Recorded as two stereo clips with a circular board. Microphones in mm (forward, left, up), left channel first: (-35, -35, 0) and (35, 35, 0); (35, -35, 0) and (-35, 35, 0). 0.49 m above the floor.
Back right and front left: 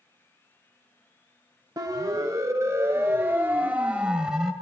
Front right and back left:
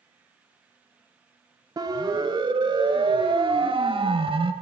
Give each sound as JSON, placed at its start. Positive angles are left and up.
{"t": 1.8, "sound": "a siren", "azimuth_deg": 95, "distance_m": 3.0}